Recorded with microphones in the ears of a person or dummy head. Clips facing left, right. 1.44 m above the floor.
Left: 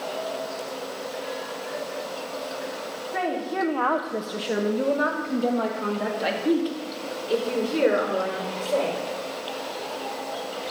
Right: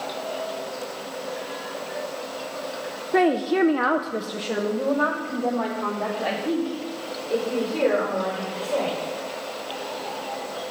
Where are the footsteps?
I don't hear footsteps.